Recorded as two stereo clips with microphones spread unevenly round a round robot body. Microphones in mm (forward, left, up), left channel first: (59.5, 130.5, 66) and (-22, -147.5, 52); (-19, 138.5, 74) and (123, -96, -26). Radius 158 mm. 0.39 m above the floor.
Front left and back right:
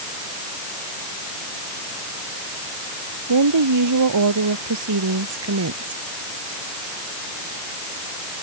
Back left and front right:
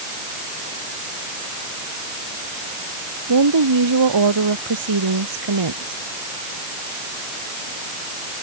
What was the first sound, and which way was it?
A woman speaking, 85° right.